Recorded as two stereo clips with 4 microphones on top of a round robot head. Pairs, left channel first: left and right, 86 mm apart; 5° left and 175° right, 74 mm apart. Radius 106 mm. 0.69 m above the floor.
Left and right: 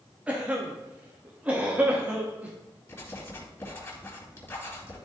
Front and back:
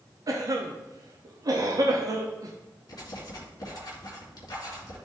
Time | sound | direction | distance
0.3 | a cough | 160° right | 0.9 m
2.9 | writing | 30° left | 2.5 m